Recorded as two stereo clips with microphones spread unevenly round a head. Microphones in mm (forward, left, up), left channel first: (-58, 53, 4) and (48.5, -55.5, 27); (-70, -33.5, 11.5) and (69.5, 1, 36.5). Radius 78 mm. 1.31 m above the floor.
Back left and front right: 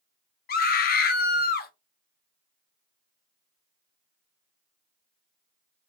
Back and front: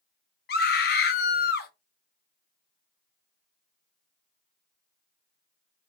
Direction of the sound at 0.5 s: 165° left.